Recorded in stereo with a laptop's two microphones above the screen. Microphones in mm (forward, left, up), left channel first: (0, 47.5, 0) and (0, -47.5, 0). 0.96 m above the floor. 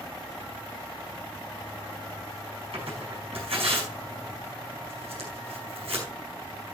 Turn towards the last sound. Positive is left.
turn(degrees=-85)